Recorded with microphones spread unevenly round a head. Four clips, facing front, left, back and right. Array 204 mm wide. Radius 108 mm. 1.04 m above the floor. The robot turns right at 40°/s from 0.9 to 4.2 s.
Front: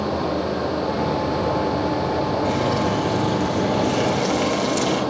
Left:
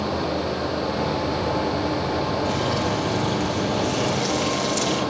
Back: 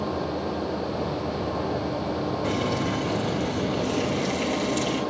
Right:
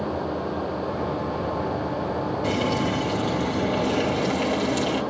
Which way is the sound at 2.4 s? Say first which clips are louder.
Even, front 5 dB; 100° right.